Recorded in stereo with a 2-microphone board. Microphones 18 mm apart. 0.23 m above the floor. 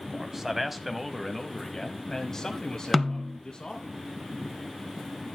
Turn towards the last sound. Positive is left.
turn(degrees=5)  # may be behind; listen again after turning